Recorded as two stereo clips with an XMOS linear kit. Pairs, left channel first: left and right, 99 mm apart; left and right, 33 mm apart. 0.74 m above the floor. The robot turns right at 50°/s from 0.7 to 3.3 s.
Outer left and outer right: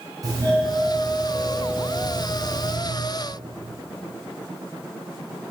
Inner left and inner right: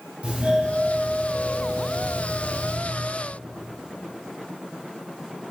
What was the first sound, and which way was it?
A doorbell, 140° right.